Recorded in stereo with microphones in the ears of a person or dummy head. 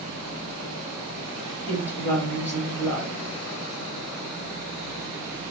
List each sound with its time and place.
1.7 s a woman speaking: 15° left (ahead or behind), 3.5 m